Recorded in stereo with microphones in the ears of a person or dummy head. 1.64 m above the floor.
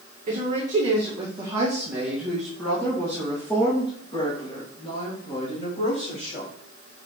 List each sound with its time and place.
0.3 s a woman speaking: 35° right (ahead or behind), 1.8 m; by 6.5 s 45° left (ahead or behind), 3.5 m